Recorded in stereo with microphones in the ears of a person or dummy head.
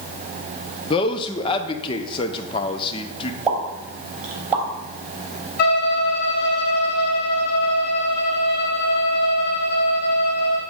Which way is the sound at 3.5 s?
5° right (ahead or behind).